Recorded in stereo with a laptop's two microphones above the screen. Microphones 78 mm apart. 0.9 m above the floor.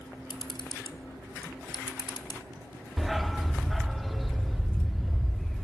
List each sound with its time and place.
0.3 s a camera shutter: 70° left (ahead or behind), 0.9 m
3.0 s a dog barking: centre (ahead or behind), 0.6 m